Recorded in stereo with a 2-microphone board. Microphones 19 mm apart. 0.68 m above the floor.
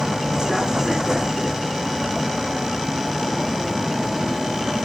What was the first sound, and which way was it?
A vehicle, 45° right (ahead or behind).